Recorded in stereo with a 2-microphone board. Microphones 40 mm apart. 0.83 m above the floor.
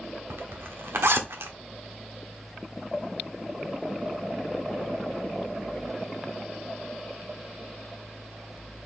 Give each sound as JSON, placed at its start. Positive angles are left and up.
{"t": 0.3, "sound": "a zipper", "side_deg": -80, "distance_m": 1.2}